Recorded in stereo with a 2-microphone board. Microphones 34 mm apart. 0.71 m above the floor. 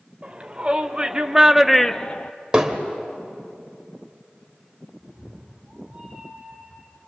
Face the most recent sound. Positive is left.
turn(degrees=-35)  # may be behind; listen again after turning